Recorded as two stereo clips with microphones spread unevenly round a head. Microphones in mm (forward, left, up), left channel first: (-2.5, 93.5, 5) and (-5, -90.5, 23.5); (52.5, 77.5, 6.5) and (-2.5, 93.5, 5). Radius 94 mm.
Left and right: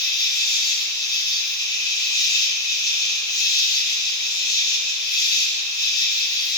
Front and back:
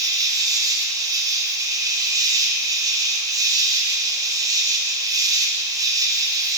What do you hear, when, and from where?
0.0 s an insect: 160° left, 1.2 m